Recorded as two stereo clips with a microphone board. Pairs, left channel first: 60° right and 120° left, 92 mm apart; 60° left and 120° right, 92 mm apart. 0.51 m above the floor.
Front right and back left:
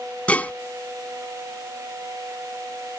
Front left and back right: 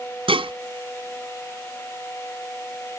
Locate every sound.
0.3 s dishes clattering: 135° right